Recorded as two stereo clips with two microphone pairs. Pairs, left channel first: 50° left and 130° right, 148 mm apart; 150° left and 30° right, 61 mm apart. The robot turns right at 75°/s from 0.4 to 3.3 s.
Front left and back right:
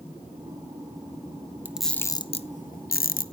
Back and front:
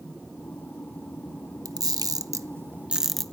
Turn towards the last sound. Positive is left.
turn(degrees=75)